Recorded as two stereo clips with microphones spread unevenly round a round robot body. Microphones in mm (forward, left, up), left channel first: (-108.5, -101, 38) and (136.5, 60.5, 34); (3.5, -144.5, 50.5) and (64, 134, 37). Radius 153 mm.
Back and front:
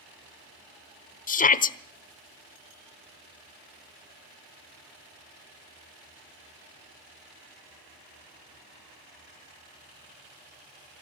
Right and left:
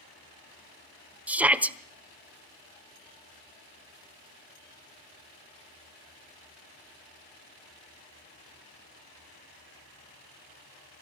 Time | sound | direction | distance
1.3 | a shout | 160° left | 1.2 m